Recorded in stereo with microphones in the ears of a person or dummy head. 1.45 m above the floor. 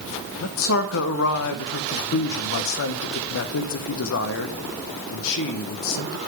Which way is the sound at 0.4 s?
70° left (ahead or behind).